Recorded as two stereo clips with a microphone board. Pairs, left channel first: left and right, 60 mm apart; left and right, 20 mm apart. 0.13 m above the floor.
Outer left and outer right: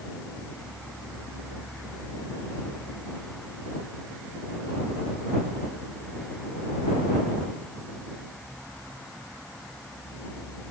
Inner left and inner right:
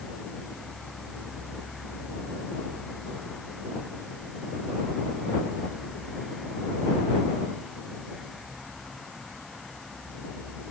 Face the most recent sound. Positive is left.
No sound to turn to.